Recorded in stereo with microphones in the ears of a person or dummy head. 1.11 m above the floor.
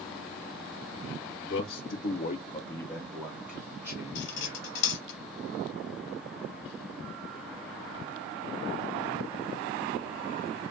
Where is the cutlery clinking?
60° left (ahead or behind), 0.9 m.